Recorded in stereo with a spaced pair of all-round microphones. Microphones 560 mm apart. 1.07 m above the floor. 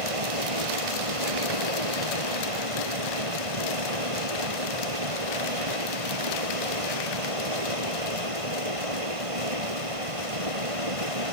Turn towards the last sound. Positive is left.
turn(degrees=-80)